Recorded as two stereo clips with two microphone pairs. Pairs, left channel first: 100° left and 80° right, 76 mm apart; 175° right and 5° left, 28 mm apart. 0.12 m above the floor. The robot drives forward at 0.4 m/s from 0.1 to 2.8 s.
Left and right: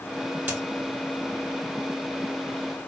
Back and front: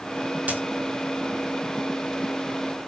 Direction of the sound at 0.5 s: 15° right.